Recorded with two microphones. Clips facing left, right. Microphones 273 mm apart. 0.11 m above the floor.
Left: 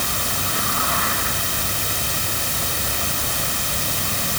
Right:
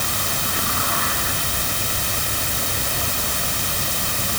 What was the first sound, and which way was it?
Only background noise.